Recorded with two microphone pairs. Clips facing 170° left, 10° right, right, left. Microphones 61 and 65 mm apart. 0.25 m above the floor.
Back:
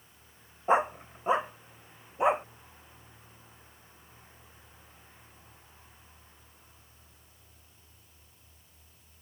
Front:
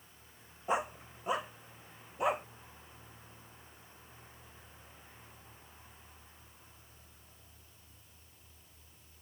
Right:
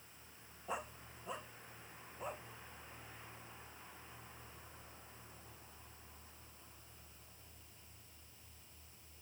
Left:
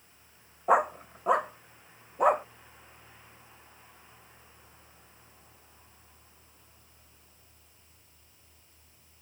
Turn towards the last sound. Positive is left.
turn(degrees=105)